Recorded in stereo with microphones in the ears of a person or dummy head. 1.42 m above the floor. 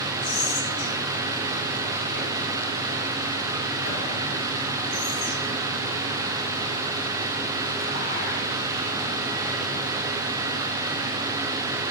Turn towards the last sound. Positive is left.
turn(degrees=55)  # may be behind; listen again after turning